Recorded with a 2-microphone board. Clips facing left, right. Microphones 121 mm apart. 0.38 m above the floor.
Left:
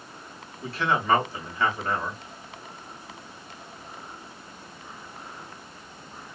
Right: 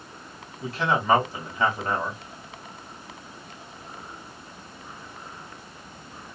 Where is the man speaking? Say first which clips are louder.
Right 1 dB; 15° right (ahead or behind), 2 m.